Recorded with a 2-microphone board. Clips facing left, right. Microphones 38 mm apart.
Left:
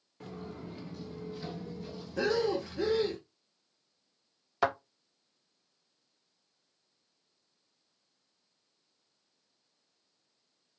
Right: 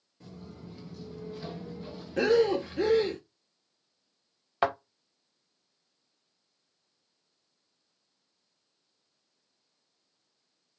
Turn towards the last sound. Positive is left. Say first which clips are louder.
# right 2 dB
turn(degrees=-25)  # may be behind; listen again after turning